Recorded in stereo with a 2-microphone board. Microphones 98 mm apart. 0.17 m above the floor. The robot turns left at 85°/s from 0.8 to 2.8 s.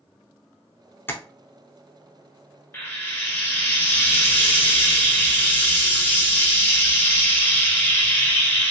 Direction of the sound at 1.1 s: 20° left (ahead or behind).